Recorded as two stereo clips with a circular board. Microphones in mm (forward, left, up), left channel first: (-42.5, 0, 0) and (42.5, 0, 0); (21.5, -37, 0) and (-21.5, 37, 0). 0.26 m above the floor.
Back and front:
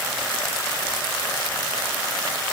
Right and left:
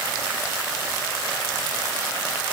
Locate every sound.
Only background noise.